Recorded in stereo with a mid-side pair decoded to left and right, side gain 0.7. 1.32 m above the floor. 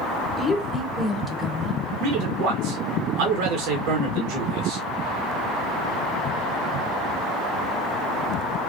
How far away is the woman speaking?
About 1.1 m.